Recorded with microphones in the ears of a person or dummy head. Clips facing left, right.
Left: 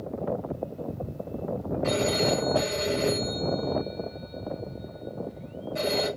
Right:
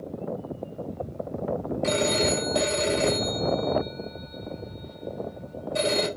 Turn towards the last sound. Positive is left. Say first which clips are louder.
# even
turn(degrees=-45)  # may be behind; listen again after turning